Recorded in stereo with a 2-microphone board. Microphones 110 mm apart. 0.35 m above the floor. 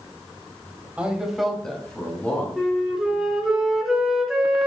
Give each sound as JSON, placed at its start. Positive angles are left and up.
{"t": 1.0, "sound": "a man speaking", "side_deg": -10, "distance_m": 1.8}
{"t": 2.6, "sound": "a flute", "side_deg": -5, "distance_m": 2.0}